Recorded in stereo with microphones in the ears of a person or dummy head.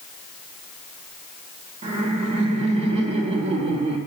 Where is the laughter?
35° right (ahead or behind), 1.7 m.